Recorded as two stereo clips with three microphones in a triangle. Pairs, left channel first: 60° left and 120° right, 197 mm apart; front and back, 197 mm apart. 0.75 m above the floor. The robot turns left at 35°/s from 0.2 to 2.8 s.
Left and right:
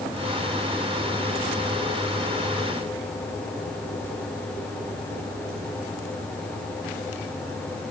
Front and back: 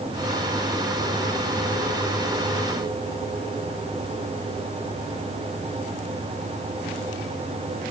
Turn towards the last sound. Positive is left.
No sound to turn to.